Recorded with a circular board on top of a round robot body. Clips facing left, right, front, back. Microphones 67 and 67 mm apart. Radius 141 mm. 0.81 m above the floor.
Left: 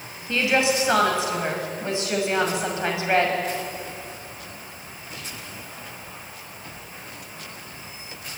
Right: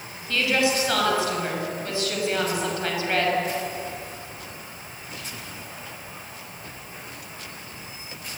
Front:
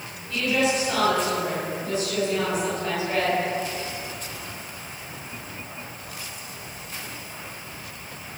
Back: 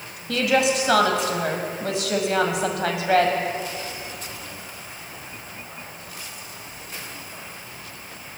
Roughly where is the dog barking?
No dog barking in this recording.